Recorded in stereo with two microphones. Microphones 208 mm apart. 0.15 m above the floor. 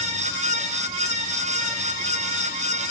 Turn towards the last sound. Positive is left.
No sound to turn to.